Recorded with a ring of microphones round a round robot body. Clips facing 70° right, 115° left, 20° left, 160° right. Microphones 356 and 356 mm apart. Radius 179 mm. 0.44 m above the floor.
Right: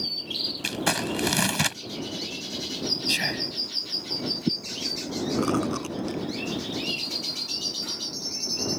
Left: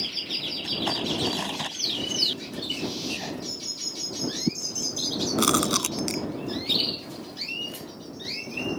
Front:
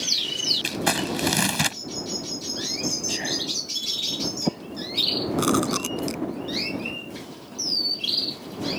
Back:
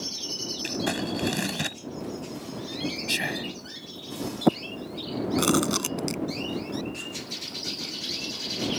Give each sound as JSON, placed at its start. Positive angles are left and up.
{"t": 0.6, "sound": "crumpling", "azimuth_deg": -40}
{"t": 3.1, "sound": "whispering", "azimuth_deg": -105}
{"t": 5.4, "sound": "chewing", "azimuth_deg": 125}